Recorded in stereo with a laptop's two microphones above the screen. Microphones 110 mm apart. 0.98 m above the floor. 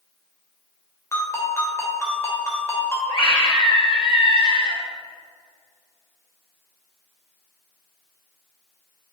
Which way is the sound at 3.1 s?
50° left (ahead or behind).